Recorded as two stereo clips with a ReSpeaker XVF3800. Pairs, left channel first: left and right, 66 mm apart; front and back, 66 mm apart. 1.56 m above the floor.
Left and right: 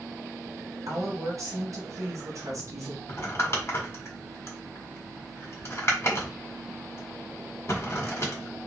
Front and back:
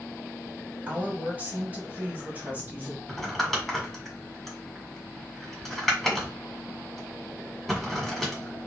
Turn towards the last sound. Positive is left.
turn(degrees=90)